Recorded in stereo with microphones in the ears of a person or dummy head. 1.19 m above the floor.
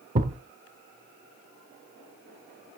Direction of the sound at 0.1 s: 35° right (ahead or behind).